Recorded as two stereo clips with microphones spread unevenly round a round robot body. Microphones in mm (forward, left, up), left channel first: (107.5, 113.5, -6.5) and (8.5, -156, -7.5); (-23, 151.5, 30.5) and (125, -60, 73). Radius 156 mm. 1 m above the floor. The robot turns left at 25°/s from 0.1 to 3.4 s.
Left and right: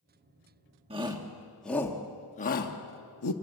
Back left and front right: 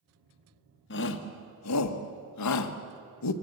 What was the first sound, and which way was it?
A shout, 175° left.